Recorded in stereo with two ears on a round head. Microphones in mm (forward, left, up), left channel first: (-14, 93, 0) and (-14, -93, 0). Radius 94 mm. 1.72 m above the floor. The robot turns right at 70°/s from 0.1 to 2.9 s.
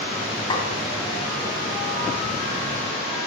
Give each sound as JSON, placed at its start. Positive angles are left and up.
{"t": 0.5, "sound": "a snare drum", "side_deg": 25, "distance_m": 2.5}